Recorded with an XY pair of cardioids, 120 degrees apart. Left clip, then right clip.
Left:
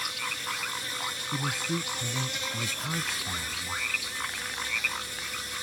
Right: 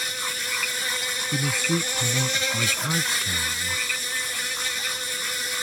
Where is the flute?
No flute in this recording.